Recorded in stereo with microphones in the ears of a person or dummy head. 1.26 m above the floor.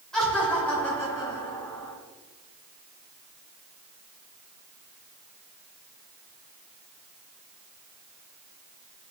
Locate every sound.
0.1 s laughter: 5° left (ahead or behind), 2.5 m; by 1.9 s 20° left (ahead or behind), 3 m